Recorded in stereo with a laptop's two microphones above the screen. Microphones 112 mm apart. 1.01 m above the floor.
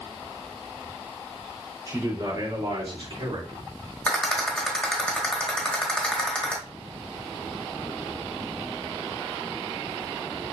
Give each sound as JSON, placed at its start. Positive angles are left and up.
{"t": 1.9, "sound": "a man speaking", "side_deg": -30, "distance_m": 3.0}
{"t": 4.1, "sound": "a rattle", "side_deg": 10, "distance_m": 1.4}